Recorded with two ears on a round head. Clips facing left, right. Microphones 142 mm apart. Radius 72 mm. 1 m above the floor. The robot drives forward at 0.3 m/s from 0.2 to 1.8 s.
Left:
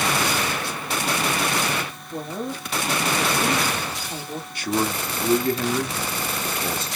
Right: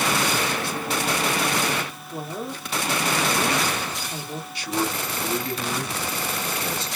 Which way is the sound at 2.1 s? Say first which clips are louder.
Left 3 dB; 10° left (ahead or behind).